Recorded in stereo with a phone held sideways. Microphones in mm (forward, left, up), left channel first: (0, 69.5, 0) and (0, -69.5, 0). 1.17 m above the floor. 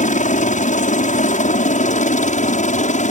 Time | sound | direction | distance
0.0 | a helicopter | 65° left (ahead or behind) | ?